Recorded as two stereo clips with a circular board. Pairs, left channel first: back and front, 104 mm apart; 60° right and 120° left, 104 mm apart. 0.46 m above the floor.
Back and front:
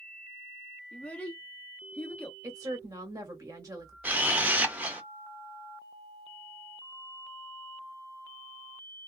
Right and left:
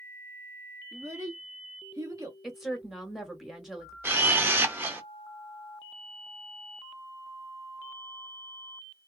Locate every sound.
0.9 s a child speaking: 115° left, 0.7 m
2.4 s a woman speaking: 35° left, 1.0 m
4.0 s a camera shutter: 65° left, 0.6 m